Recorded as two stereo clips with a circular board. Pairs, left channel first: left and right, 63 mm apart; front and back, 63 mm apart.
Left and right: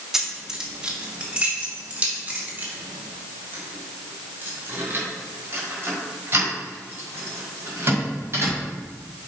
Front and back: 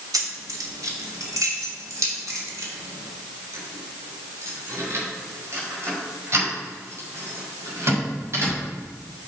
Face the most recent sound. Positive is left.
turn(degrees=-135)